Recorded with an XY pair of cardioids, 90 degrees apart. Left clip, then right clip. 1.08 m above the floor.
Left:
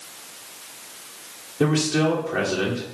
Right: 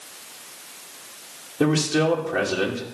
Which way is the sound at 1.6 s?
15° right.